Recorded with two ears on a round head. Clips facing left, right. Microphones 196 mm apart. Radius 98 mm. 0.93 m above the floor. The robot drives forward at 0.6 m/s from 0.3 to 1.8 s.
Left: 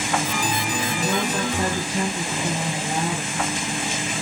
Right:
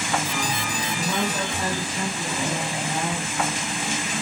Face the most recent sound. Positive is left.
turn(degrees=30)  # may be behind; listen again after turning